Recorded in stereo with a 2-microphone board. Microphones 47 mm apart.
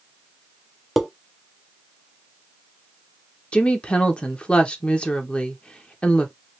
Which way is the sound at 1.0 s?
Centre (ahead or behind).